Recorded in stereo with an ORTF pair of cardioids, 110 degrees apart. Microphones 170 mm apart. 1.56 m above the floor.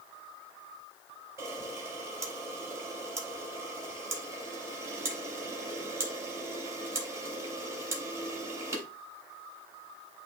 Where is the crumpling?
I don't hear crumpling.